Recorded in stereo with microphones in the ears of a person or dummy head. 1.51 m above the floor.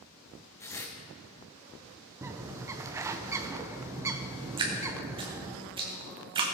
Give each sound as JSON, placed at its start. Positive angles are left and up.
{"t": 0.6, "sound": "tearing paper", "side_deg": 15, "distance_m": 1.3}
{"t": 2.2, "sound": "a bird", "side_deg": -10, "distance_m": 0.6}
{"t": 4.6, "sound": "dripping", "side_deg": -25, "distance_m": 1.5}